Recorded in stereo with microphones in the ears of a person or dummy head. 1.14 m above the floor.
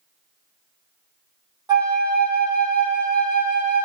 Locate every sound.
1.7 s a flute: 25° right (ahead or behind), 0.6 m